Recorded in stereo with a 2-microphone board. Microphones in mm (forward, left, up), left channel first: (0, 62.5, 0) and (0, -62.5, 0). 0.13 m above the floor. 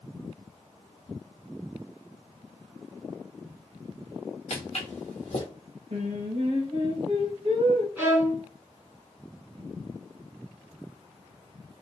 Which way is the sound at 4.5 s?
55° left (ahead or behind).